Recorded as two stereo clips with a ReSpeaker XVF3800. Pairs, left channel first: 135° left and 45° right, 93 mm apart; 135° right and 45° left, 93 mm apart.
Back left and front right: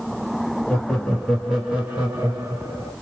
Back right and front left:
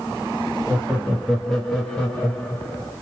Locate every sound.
0.7 s laughter: 95° left, 1.0 m; by 2.9 s 80° right, 1.4 m